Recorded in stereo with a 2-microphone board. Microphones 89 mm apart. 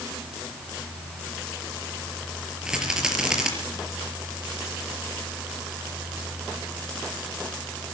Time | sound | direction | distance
2.6 | a rattle | 10° right (ahead or behind) | 5 m